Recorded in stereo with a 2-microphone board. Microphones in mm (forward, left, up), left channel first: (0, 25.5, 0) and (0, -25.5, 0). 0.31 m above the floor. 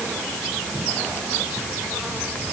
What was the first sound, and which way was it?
Only background noise.